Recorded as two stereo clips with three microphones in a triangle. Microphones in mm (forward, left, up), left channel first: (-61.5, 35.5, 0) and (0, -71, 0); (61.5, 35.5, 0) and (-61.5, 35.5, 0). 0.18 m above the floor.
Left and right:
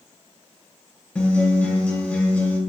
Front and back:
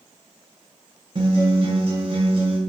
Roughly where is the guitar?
Behind.